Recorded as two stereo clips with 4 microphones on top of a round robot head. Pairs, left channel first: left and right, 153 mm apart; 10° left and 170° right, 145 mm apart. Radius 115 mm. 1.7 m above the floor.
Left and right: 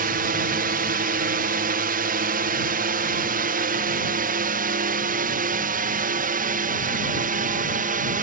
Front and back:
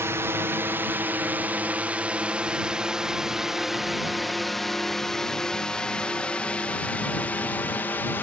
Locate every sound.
0.0 s a drone: 95° right; by 8.2 s 70° right